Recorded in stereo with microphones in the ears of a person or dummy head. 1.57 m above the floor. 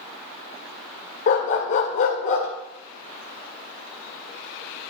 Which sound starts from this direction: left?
A dog barking, at 1.3 s.